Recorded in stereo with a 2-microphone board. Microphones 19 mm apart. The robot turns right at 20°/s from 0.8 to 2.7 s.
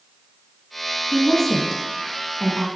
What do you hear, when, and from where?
1.1 s a woman speaking: 15° left (ahead or behind), 1.2 m; by 2.7 s 25° left (ahead or behind), 1.2 m